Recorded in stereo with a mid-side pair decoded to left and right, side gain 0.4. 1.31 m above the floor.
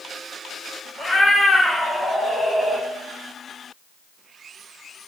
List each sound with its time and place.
1.0 s a cat meowing: 15° left, 2 m; by 2.9 s 25° right, 0.9 m